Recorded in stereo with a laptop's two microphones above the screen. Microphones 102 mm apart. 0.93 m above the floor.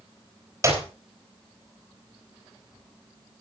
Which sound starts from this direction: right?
A clap, at 0.6 s.